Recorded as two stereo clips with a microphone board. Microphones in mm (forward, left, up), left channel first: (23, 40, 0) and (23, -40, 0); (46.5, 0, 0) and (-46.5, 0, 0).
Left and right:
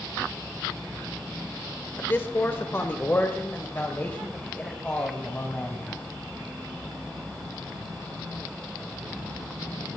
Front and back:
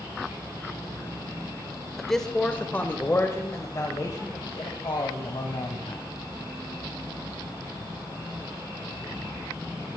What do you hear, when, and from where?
2.0 s a man speaking: 90° left, 1.1 m; by 6.1 s 25° left, 2.5 m